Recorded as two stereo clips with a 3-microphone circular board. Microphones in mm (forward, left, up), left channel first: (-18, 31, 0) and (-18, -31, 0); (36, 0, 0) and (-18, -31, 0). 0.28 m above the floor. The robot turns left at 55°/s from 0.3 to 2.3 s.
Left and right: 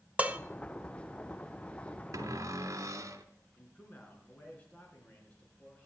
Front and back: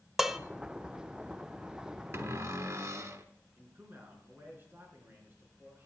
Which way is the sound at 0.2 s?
75° right.